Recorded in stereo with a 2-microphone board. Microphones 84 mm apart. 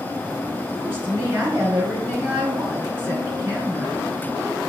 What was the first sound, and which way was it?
A woman speaking, 25° right (ahead or behind).